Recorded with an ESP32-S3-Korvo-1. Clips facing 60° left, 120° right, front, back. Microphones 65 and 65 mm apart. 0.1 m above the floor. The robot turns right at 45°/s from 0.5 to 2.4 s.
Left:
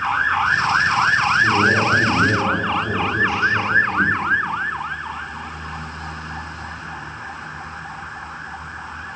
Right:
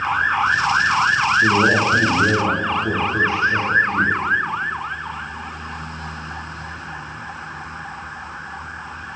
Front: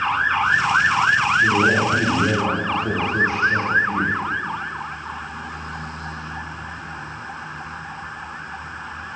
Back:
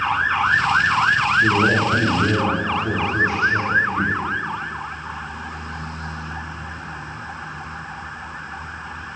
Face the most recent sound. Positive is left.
turn(degrees=-60)